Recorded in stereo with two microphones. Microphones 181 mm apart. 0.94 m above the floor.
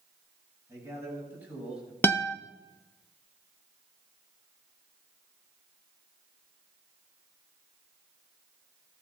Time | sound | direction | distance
0.7 | a man speaking | 20° right (ahead or behind) | 7 m
2.0 | a guitar | 10° left (ahead or behind) | 0.8 m